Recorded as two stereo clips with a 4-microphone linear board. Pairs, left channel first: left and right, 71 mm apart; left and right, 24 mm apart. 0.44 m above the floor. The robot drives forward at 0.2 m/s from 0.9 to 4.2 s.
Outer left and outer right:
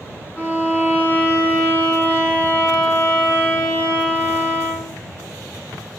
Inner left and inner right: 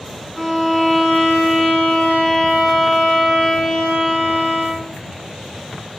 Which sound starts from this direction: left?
A violin, at 0.4 s.